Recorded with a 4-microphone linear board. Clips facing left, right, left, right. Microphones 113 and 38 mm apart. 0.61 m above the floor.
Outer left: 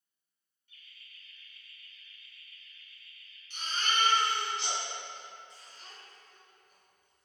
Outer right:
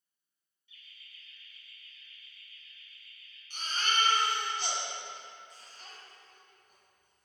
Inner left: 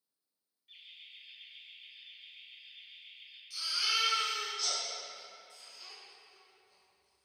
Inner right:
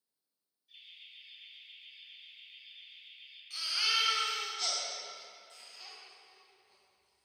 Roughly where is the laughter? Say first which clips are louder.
Even, inner left 1 dB; left.